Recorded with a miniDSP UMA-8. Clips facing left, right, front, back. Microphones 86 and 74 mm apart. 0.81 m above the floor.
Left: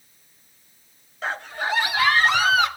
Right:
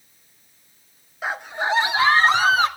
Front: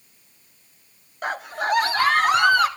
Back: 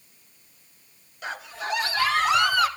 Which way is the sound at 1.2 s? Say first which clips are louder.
Right 2 dB, front 7 dB; 10° right.